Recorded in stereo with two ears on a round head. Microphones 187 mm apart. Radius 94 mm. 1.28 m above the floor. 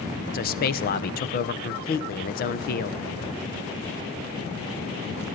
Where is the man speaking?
45° left (ahead or behind), 0.9 m.